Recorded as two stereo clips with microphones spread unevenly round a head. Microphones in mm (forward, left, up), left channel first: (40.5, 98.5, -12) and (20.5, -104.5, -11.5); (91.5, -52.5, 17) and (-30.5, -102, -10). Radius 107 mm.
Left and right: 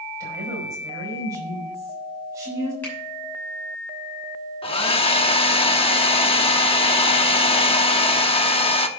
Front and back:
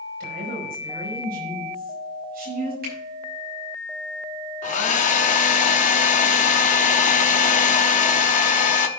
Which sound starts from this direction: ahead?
A hair dryer, at 4.6 s.